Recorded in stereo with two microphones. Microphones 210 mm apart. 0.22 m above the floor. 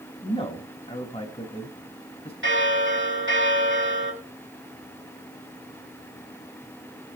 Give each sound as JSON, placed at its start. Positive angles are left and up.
{"t": 0.2, "sound": "a man speaking", "side_deg": 25, "distance_m": 1.9}
{"t": 2.4, "sound": "a bell", "side_deg": -65, "distance_m": 6.0}